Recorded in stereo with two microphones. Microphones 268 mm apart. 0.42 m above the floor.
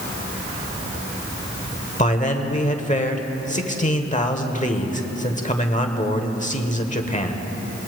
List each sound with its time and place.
2.0 s a man speaking: 25° left (ahead or behind), 1.1 m